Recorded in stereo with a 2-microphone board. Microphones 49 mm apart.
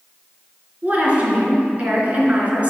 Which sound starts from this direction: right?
A woman speaking, at 0.8 s.